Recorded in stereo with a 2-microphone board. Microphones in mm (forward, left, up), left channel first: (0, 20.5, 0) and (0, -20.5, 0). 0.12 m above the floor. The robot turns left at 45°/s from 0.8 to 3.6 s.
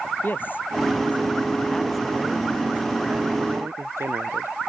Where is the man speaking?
50° left; by 4.5 s 75° right.